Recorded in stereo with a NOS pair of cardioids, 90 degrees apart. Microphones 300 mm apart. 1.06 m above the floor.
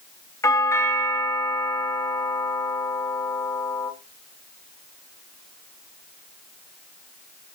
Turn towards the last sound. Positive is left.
turn(degrees=10)